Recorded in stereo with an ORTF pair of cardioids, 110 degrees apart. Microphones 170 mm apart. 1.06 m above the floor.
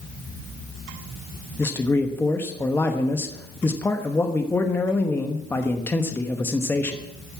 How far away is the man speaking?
About 1.0 m.